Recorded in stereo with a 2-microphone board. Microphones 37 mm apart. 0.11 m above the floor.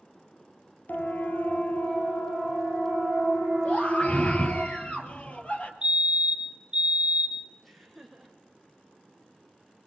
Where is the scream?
35° left (ahead or behind), 3 m.